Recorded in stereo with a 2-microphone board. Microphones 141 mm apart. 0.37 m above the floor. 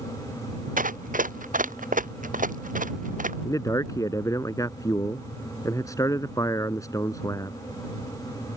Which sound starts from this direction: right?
Running footsteps, at 0.8 s.